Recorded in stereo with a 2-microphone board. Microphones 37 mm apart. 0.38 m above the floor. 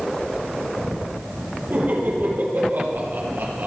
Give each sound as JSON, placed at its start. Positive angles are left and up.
{"t": 1.7, "sound": "laughter", "side_deg": -60, "distance_m": 8.5}